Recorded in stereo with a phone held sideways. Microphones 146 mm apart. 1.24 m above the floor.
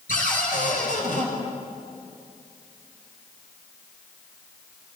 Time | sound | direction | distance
0.1 | a cupboard door | 75° left (ahead or behind) | 5.5 m